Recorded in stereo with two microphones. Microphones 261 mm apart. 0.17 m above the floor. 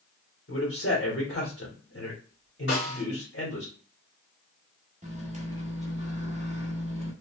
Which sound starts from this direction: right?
A microwave, at 5.0 s.